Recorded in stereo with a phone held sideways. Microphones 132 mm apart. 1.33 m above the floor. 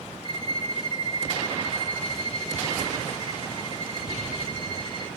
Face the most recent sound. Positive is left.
turn(degrees=35)  # may be behind; listen again after turning